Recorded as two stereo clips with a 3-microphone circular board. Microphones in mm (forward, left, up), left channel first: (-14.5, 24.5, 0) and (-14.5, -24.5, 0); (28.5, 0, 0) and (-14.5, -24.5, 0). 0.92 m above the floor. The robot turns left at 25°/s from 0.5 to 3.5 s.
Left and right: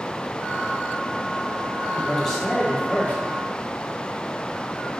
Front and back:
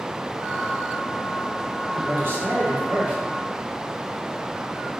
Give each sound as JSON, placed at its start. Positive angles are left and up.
{"t": 1.9, "sound": "a man speaking", "azimuth_deg": 180, "distance_m": 1.2}